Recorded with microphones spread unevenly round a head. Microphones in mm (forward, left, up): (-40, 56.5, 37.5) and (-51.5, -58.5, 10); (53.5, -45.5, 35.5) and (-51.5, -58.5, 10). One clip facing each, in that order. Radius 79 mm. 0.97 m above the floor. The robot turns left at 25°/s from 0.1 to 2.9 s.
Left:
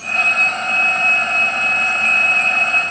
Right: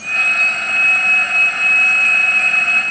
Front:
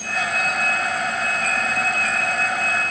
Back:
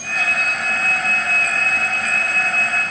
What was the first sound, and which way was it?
Only background noise.